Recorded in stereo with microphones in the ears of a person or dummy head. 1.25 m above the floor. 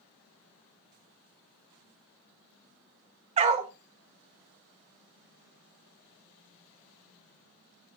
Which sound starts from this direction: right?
A dog barking, at 3.4 s.